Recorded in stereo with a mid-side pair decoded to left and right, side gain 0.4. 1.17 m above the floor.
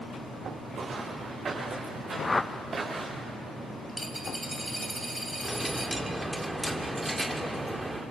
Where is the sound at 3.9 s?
10° right, 2.5 m.